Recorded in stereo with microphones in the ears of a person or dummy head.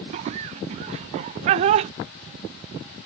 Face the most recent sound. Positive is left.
turn(degrees=-35)  # may be behind; listen again after turning